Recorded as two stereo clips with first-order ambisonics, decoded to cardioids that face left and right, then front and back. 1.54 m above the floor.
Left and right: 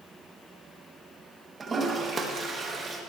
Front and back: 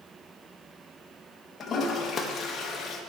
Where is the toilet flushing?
35° right, 0.9 m.